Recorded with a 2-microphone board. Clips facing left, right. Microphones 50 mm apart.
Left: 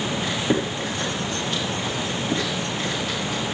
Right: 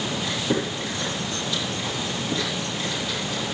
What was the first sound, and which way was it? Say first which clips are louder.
Chewing: left 2 dB; 55° left (ahead or behind).